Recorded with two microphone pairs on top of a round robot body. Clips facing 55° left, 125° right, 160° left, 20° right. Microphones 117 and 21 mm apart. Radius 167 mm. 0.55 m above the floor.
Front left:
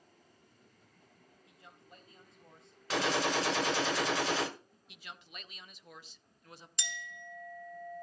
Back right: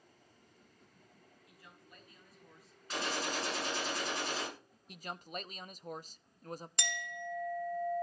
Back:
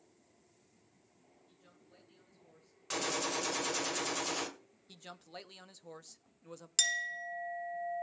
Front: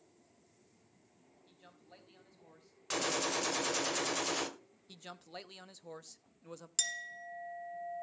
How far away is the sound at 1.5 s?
About 4.5 m.